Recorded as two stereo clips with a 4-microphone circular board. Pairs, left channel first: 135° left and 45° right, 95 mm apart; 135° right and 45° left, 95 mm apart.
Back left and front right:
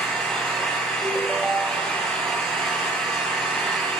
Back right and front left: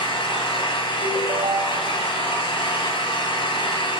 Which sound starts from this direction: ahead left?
A ringtone, at 1.0 s.